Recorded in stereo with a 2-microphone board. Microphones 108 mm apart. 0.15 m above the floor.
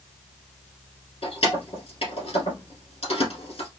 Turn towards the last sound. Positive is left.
turn(degrees=60)  # may be behind; listen again after turning